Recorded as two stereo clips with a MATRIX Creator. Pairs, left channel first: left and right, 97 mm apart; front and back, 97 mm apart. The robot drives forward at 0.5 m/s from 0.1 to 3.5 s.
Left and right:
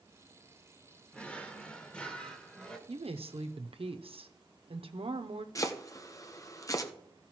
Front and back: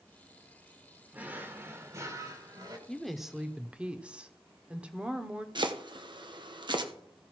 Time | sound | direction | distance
1.1 | a drawer | 140° left | 1.2 m
2.9 | a woman speaking | 85° right | 1.0 m
5.5 | chopping | 145° left | 0.9 m